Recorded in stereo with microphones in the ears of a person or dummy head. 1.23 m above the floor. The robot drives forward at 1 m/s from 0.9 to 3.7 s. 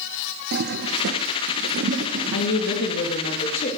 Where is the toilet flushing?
55° right (ahead or behind), 1.1 m; by 2.8 s 30° right (ahead or behind), 1.7 m.